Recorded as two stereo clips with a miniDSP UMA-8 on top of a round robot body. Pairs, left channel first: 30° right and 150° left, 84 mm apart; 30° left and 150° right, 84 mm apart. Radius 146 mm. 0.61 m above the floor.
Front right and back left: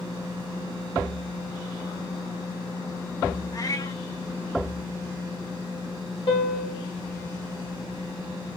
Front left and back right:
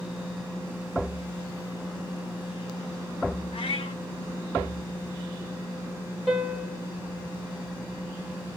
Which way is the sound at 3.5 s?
20° left.